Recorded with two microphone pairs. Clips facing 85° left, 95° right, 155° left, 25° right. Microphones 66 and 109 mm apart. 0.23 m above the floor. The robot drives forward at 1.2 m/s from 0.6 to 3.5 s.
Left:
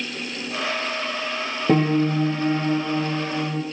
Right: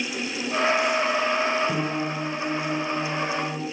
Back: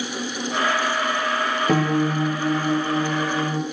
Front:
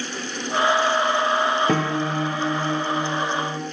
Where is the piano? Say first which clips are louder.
Left 7 dB, back 2 dB; 65° left, 3.5 m; by 3.6 s 105° left, 3 m.